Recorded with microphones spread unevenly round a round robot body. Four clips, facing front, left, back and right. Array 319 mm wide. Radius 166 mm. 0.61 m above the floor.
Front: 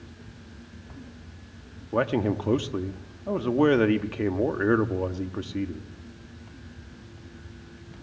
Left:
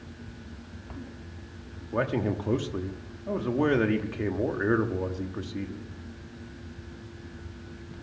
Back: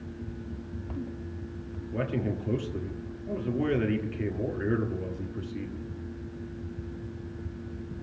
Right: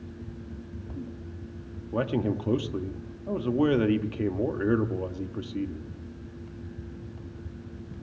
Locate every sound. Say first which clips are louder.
1.9 s a man speaking: even, front 6 dB; 10° right, 1.1 m